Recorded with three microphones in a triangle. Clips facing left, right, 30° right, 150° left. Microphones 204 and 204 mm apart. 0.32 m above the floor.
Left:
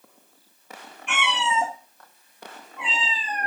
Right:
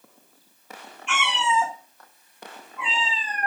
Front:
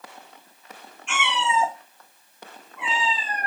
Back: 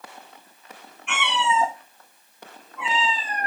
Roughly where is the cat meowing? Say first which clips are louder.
Right 1 dB, back 1 dB; behind left.